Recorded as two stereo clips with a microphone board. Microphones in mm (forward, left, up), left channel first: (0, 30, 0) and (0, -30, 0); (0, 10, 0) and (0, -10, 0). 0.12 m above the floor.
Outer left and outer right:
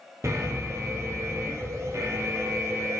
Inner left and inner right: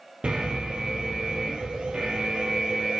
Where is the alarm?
50° right (ahead or behind), 2 m.